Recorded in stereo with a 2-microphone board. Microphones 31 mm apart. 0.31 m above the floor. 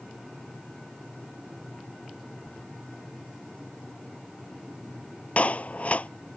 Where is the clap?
50° left (ahead or behind).